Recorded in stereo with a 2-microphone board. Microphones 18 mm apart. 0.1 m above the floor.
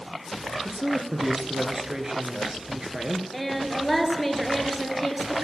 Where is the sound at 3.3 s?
Centre (ahead or behind), 2.0 m.